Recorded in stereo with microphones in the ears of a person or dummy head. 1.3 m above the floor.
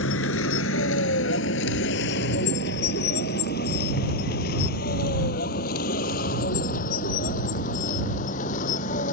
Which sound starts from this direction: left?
A vehicle, at 0.0 s.